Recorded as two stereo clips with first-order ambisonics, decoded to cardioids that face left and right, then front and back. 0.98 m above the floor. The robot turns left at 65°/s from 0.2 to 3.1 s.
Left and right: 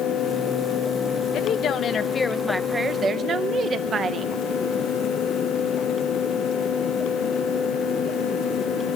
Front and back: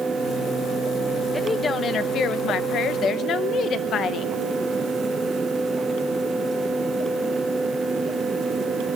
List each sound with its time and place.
1.3 s a woman speaking: 80° left, 0.8 m; by 4.3 s 35° right, 0.8 m